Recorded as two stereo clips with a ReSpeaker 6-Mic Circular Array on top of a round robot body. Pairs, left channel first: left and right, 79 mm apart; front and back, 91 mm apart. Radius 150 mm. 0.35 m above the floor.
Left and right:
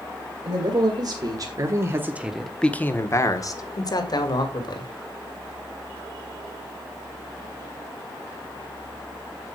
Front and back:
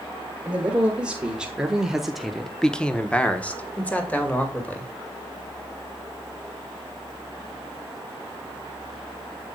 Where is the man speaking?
105° right, 3 m; by 4.9 s 70° left, 3.5 m.